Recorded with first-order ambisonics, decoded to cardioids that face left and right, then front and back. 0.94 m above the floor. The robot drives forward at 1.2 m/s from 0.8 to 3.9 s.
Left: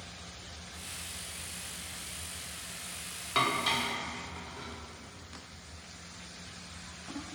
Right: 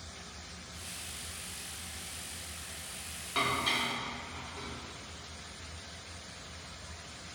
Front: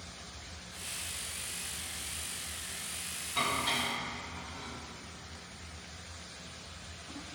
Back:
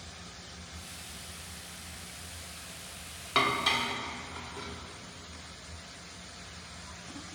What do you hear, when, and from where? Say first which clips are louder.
3.4 s dishes clattering: left 2 dB, back 4 dB; 160° left, 1.1 m; by 4.7 s 170° left, 1.7 m